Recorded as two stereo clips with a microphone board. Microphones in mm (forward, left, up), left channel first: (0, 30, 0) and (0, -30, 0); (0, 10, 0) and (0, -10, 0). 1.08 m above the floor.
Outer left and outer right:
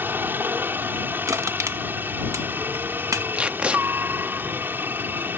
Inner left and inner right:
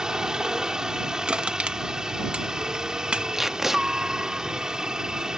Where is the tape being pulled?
20° right (ahead or behind).